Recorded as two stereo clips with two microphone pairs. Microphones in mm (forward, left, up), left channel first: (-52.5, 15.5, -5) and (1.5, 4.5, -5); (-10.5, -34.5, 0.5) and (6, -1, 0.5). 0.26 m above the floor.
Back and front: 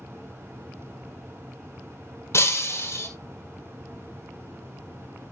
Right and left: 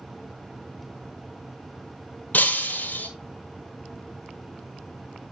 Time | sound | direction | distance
2.3 | breaking glass | 160° right | 1.9 m